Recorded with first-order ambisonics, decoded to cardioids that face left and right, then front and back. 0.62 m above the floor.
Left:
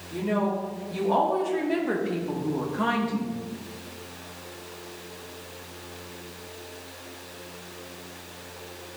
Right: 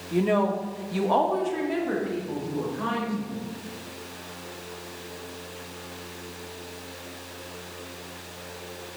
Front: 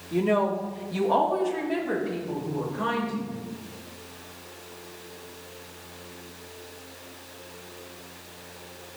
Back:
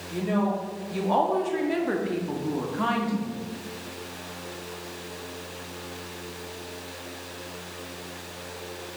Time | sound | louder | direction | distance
0.1 | a woman speaking | right 4 dB, front 4 dB | 60° right | 1.1 m